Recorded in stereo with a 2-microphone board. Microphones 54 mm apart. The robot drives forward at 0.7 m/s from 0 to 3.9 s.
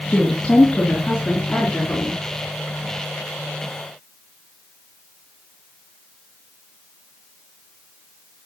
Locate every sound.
0.1 s a woman speaking: 15° left (ahead or behind), 3 m; by 2.2 s 10° left (ahead or behind), 4.5 m